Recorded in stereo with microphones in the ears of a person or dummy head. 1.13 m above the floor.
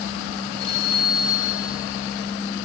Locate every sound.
0.6 s a phone ringing: 75° left (ahead or behind), 6 m